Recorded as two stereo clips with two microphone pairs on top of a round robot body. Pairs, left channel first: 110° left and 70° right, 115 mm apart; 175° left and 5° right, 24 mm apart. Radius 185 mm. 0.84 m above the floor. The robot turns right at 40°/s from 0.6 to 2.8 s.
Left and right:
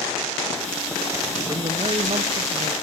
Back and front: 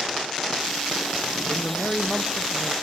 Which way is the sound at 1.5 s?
125° right.